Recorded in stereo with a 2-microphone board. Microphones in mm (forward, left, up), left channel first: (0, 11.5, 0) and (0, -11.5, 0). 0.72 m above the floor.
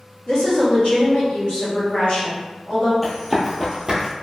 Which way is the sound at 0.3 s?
45° left (ahead or behind).